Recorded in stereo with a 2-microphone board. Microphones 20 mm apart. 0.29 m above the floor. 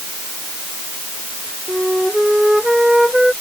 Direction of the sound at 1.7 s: 30° right (ahead or behind).